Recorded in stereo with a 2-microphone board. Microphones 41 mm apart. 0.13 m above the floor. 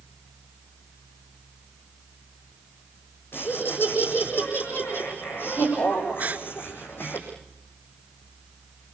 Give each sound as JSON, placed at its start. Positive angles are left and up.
{"t": 3.3, "sound": "laughter", "side_deg": 65, "distance_m": 6.5}
{"t": 6.2, "sound": "a gasp", "side_deg": -45, "distance_m": 1.1}